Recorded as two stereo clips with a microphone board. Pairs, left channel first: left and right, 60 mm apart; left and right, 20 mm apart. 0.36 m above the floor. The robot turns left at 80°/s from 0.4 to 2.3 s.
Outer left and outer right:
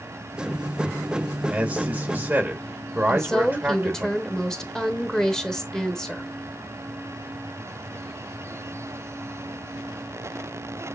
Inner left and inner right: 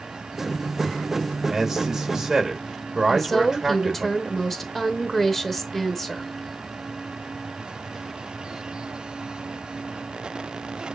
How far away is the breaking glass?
I don't hear breaking glass.